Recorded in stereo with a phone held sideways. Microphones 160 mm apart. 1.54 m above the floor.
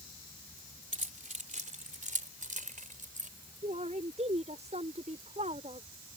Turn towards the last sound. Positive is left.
turn(degrees=-45)  # may be behind; listen again after turning